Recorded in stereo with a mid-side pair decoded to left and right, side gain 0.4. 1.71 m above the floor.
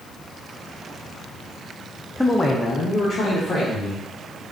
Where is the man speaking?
5° left, 0.5 m; by 4.1 s 65° left, 1.9 m.